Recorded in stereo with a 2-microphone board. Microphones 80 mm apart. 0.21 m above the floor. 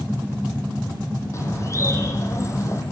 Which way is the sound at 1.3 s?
35° left (ahead or behind).